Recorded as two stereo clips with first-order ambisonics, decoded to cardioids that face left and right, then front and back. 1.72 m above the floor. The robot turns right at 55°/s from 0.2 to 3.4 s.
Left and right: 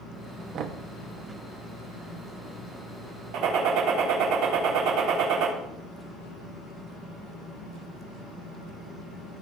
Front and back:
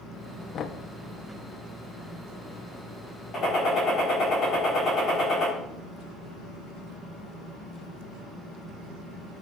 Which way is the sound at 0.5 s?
55° right.